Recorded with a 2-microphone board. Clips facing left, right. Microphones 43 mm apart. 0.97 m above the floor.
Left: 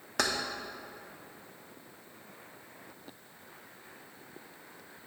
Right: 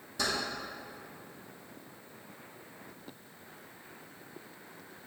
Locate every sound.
0.2 s keys jangling: 65° left (ahead or behind), 0.8 m